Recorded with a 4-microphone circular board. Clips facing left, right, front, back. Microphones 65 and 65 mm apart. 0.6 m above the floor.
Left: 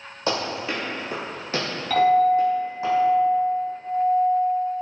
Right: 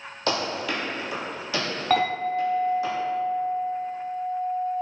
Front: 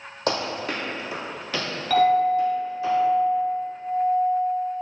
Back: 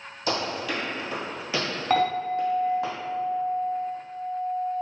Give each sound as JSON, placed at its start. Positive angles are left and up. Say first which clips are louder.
{"t": 0.3, "sound": "running footsteps", "louder": "left 1 dB, front 2 dB", "azimuth_deg": 20, "distance_m": 1.1}
{"t": 1.9, "sound": "a clink", "louder": "left 7 dB, front 6 dB", "azimuth_deg": -135, "distance_m": 0.9}